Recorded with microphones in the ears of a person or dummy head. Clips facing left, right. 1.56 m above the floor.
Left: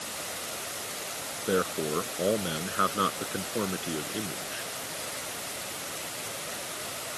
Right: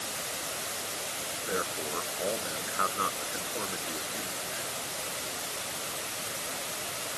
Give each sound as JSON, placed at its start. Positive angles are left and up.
{"t": 1.5, "sound": "a man speaking", "side_deg": 45}